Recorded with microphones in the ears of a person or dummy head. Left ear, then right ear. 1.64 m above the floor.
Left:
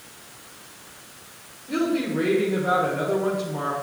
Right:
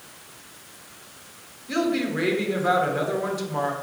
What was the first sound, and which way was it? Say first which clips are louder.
A woman speaking: even; 80° right.